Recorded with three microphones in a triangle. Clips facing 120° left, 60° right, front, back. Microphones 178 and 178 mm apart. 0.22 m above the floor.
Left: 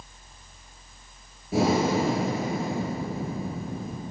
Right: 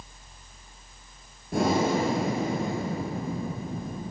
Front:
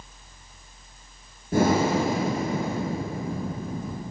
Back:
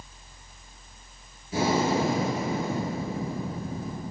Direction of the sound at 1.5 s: 35° left.